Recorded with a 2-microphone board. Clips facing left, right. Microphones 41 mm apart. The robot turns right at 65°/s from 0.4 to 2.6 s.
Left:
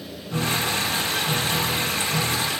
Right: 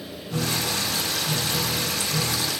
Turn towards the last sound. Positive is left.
turn(degrees=160)